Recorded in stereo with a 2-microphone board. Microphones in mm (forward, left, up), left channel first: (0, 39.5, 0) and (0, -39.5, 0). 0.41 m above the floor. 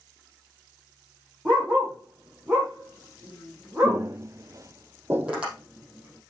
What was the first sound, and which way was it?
A dog barking, 10° right (ahead or behind).